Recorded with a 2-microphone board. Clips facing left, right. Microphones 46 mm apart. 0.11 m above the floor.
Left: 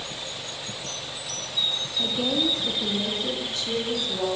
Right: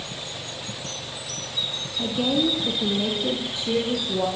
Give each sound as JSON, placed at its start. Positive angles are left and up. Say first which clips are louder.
{"t": 2.0, "sound": "a woman speaking", "louder": "right 3 dB", "side_deg": -5, "distance_m": 4.0}